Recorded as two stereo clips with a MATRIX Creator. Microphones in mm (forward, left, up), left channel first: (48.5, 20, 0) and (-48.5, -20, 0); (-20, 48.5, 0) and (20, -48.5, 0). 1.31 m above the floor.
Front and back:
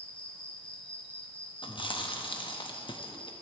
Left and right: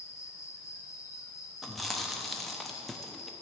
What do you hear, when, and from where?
0.0 s an insect: 50° left, 1.1 m
1.6 s chewing: 25° left, 0.8 m